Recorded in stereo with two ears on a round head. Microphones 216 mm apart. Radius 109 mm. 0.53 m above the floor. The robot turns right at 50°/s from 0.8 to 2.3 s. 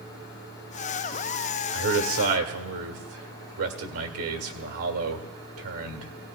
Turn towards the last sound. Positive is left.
turn(degrees=-65)  # may be behind; listen again after turning